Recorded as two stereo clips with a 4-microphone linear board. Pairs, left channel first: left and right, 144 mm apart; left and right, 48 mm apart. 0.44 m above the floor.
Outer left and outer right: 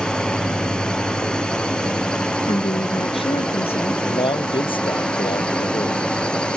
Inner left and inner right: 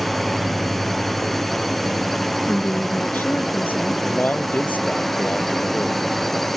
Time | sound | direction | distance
0.0 | a drone | 5° left (ahead or behind) | ?
2.5 | a woman speaking | 40° left (ahead or behind) | ?
4.0 | a man speaking | 35° left (ahead or behind) | ?